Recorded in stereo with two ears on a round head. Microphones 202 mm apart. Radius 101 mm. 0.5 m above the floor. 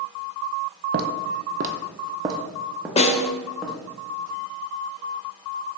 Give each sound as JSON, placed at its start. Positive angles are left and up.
{"t": 0.9, "sound": "footsteps", "side_deg": -45, "distance_m": 0.8}
{"t": 3.0, "sound": "a snare drum", "side_deg": 30, "distance_m": 0.5}